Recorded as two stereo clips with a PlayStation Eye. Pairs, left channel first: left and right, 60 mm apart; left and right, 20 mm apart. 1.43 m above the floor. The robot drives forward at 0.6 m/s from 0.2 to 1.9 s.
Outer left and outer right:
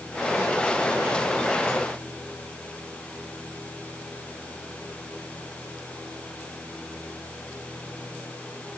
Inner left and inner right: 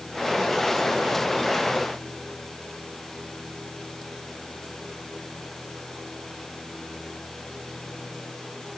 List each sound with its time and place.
Only background noise.